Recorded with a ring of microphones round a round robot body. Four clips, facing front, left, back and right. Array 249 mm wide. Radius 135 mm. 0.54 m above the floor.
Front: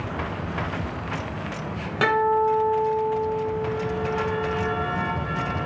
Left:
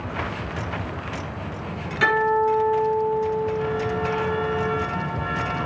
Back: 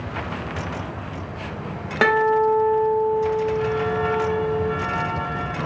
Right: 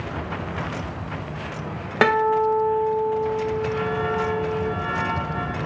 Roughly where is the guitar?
Right.